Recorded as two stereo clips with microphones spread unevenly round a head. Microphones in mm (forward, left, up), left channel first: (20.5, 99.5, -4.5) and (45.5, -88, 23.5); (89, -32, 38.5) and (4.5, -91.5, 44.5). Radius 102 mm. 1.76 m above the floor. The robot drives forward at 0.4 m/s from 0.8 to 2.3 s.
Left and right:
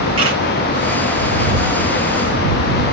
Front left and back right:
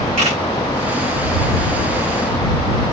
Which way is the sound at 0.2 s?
145° right.